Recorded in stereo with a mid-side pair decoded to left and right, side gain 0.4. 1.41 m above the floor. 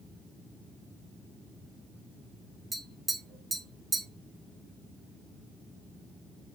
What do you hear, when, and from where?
2.7 s tapping: 25° right, 1.9 m